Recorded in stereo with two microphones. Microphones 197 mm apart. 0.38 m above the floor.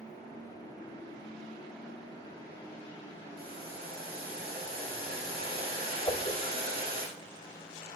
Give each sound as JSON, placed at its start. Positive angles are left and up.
{"t": 3.4, "sound": "boiling", "side_deg": -50, "distance_m": 5.5}
{"t": 6.1, "sound": "a whoosh", "side_deg": 25, "distance_m": 1.7}